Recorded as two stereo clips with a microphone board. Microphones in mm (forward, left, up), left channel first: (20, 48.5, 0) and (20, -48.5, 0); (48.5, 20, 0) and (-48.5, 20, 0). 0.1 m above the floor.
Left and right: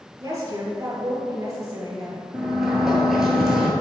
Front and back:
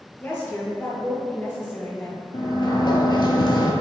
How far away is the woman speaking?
About 1.5 m.